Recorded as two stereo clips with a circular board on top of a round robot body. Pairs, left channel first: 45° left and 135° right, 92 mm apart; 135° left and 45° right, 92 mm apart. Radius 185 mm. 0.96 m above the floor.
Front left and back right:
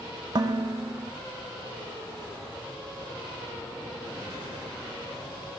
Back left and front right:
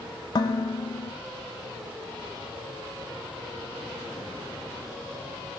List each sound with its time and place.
0.3 s dishes clattering: straight behind, 0.7 m